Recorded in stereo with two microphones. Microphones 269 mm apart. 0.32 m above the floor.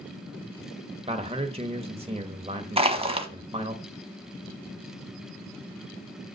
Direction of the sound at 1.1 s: 20° right (ahead or behind).